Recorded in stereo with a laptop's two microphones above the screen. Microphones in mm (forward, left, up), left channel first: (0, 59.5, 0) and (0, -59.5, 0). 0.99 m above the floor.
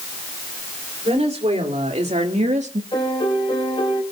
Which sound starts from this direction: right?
A woman speaking, at 1.1 s.